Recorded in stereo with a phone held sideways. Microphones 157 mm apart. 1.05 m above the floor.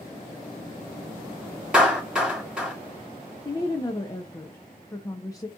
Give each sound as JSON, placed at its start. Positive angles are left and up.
{"t": 1.7, "sound": "a clap", "side_deg": -5, "distance_m": 2.5}
{"t": 3.5, "sound": "a woman speaking", "side_deg": 25, "distance_m": 0.7}